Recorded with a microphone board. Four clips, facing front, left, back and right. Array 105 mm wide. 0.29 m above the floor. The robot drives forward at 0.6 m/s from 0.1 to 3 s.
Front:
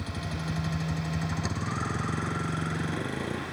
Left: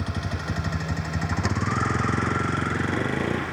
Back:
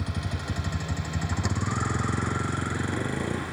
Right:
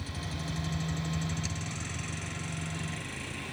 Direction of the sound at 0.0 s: 100° left.